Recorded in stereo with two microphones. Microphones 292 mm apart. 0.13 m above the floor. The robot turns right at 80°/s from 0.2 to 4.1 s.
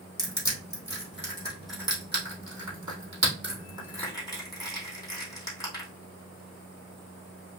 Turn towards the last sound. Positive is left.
turn(degrees=10)  # may be behind; listen again after turning